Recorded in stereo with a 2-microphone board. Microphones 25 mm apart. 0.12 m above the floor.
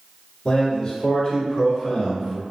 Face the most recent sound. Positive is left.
turn(degrees=20)  # may be behind; listen again after turning